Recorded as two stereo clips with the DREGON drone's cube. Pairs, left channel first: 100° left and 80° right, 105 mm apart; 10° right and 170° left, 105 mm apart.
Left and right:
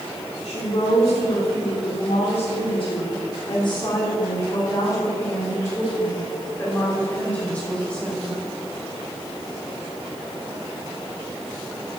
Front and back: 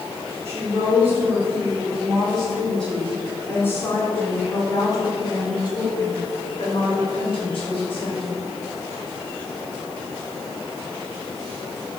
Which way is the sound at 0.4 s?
105° left.